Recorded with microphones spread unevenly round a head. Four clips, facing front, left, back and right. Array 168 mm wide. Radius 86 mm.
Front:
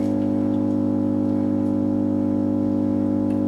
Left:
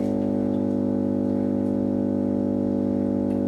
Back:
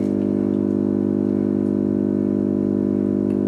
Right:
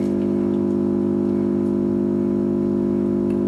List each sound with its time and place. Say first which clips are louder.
0.0 s an engine running: right 3 dB, back 1 dB; 100° right, 5 m